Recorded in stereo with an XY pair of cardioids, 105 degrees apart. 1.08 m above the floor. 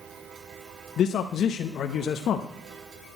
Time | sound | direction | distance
1.0 | a man speaking | 65° left | 0.8 m